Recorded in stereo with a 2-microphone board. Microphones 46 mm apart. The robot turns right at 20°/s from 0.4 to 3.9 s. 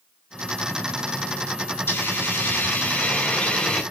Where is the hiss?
125° left, 3.5 m; by 3.8 s 165° left, 3.5 m.